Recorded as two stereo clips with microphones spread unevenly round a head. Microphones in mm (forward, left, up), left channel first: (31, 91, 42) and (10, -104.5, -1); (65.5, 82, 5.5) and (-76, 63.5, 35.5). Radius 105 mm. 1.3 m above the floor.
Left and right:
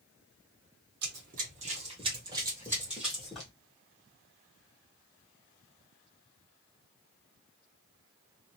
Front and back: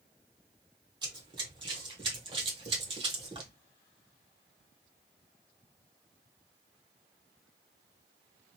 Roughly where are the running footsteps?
Behind right.